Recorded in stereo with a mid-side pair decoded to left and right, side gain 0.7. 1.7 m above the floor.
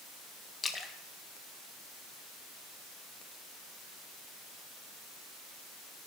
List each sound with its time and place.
0.6 s a splash: 25° left, 1.7 m